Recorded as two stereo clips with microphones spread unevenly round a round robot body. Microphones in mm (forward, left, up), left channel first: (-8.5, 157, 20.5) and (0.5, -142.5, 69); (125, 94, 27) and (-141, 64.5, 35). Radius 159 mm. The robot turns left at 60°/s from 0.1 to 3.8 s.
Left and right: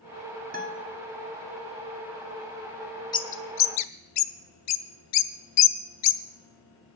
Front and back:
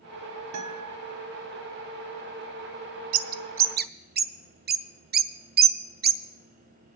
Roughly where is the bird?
Behind.